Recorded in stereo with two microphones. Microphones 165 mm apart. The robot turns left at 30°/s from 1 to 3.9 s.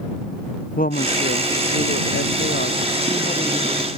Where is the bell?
I don't hear a bell.